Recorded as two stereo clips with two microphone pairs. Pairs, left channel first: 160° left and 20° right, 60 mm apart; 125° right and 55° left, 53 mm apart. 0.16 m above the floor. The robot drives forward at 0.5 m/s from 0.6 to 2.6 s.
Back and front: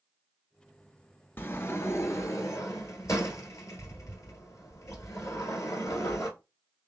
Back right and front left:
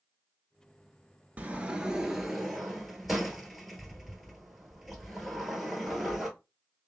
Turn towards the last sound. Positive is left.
turn(degrees=145)